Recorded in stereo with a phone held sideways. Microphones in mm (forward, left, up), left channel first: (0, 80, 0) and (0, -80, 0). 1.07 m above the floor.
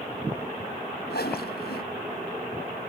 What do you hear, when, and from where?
1.1 s a whoosh: 90° left